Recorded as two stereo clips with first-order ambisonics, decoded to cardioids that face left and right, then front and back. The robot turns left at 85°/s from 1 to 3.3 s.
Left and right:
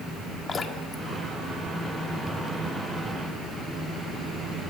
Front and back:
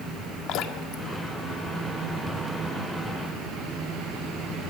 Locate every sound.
0.5 s dripping: 25° left, 1.4 m; by 2.3 s 90° right, 1.4 m